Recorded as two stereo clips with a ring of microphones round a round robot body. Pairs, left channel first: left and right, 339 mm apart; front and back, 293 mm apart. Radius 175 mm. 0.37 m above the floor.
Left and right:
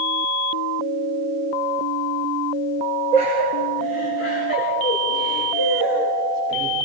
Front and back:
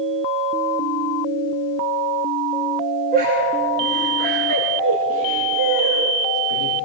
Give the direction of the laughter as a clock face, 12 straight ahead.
8 o'clock.